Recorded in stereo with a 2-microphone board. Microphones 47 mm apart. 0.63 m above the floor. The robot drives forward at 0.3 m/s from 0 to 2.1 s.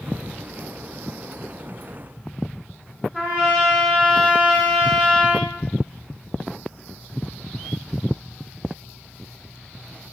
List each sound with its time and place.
3.1 s a trumpet: 25° right (ahead or behind), 1.3 m